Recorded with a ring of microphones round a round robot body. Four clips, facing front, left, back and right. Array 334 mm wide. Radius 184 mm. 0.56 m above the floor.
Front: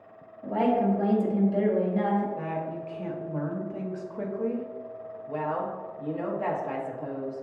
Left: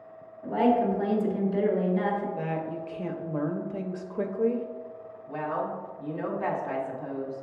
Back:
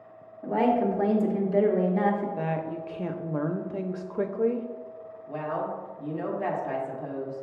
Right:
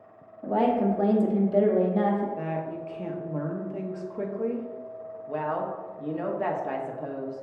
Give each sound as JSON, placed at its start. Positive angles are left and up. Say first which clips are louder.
{"t": 0.4, "sound": "a woman speaking", "louder": "even, back 1 dB", "azimuth_deg": -120, "distance_m": 1.0}
{"t": 2.4, "sound": "a woman speaking", "louder": "even, back 2 dB", "azimuth_deg": 170, "distance_m": 0.6}
{"t": 5.3, "sound": "a woman speaking", "louder": "right 1 dB, front 1 dB", "azimuth_deg": -85, "distance_m": 1.1}